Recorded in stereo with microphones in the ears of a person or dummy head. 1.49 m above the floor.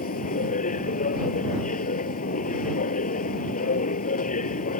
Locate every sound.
0.0 s a machine running: 45° left (ahead or behind)